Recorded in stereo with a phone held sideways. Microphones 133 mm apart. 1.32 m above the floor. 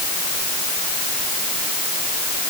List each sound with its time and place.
Only background noise.